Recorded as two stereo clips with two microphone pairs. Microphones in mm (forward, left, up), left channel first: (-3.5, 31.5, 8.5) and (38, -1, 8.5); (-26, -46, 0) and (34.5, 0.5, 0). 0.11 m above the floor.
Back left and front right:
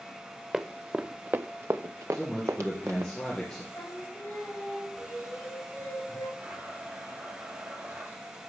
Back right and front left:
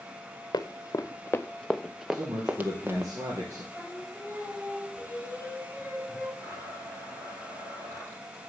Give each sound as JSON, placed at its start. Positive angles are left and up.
{"t": 0.5, "sound": "running footsteps", "azimuth_deg": -115, "distance_m": 0.9}
{"t": 2.1, "sound": "a man speaking", "azimuth_deg": 70, "distance_m": 2.5}
{"t": 3.7, "sound": "singing", "azimuth_deg": 105, "distance_m": 8.0}
{"t": 6.4, "sound": "a blender", "azimuth_deg": 0, "distance_m": 4.5}